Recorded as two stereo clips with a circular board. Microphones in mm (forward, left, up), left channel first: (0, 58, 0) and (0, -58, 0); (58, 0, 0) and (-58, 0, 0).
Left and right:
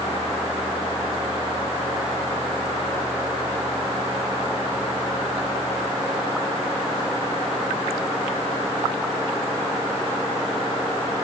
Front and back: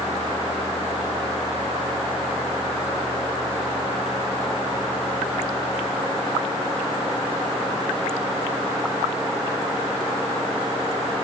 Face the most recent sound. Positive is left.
No sound to turn to.